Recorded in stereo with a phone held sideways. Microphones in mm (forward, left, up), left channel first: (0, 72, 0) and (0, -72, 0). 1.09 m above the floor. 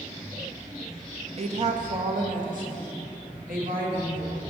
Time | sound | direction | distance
1.4 | a woman speaking | 50° right (ahead or behind) | 0.6 m